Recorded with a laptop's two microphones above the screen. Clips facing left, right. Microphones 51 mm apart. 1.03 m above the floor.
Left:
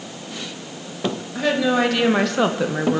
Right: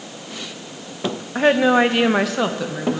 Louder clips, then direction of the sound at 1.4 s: Right 5 dB; 40° right (ahead or behind).